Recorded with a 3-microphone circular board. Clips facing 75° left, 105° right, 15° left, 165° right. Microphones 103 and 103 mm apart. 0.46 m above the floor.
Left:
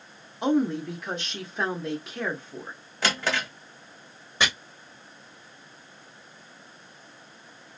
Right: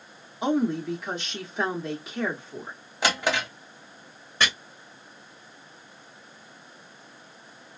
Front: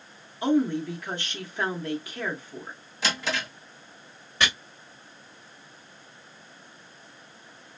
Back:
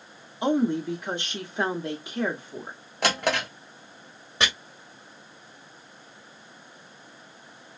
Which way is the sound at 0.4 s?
170° left.